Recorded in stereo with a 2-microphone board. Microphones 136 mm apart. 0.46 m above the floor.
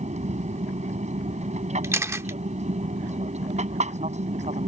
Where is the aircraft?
60° right (ahead or behind).